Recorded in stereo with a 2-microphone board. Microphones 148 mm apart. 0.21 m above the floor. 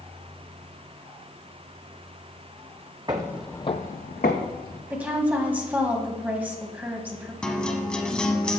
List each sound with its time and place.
3.1 s footsteps: 30° right (ahead or behind), 0.8 m; by 4.8 s 80° left, 1.7 m
4.9 s a woman speaking: 10° right (ahead or behind), 1.1 m
7.4 s a guitar: 5° left (ahead or behind), 0.8 m